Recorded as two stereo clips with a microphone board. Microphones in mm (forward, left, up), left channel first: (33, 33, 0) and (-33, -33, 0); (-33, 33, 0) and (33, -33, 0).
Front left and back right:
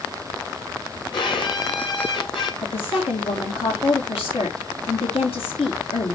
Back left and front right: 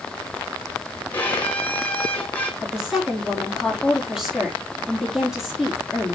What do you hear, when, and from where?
1.1 s a violin: 65° left, 2.5 m
2.6 s a woman speaking: 40° left, 3.5 m